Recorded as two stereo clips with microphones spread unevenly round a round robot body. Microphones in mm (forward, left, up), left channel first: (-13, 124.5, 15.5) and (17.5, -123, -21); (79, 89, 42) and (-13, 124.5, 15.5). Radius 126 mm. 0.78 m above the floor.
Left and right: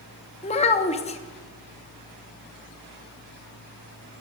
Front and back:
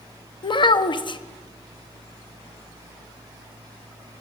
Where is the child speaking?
30° left, 0.6 m.